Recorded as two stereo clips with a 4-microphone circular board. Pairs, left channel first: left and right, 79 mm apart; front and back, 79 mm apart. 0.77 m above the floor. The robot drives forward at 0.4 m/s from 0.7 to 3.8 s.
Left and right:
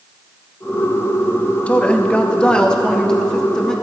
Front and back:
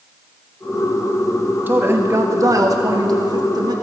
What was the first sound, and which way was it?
A woman speaking, 150° left.